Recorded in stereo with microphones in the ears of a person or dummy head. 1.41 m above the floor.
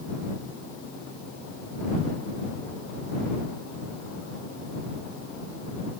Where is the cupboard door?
No cupboard door in this recording.